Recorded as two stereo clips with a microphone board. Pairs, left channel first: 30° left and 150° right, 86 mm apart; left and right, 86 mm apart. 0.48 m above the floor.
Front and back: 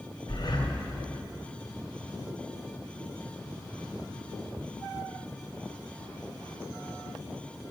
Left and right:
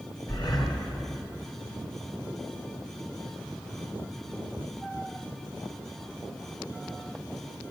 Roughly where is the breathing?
Ahead left.